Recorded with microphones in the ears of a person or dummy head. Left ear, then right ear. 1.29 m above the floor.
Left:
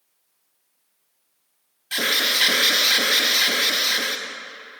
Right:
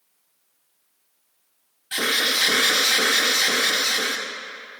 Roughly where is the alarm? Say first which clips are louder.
Left 1 dB; centre.